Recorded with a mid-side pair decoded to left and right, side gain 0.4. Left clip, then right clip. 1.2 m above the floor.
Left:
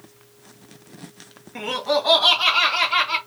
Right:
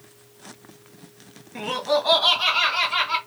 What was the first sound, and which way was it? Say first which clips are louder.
Laughter: left 1 dB; 15° left.